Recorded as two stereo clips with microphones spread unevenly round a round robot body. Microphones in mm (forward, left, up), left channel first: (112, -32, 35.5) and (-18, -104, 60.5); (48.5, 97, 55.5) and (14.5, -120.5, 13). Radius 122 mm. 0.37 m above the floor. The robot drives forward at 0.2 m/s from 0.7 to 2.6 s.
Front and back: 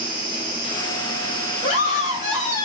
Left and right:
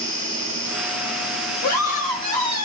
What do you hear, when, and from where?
0.0 s an insect: 155° left, 1.7 m; by 2.6 s 160° left, 2.0 m
1.6 s a scream: 70° left, 2.5 m; by 2.6 s 75° left, 2.5 m